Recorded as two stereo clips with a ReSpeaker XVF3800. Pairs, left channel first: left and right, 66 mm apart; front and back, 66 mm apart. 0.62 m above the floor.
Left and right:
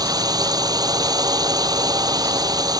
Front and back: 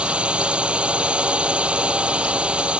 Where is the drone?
105° right.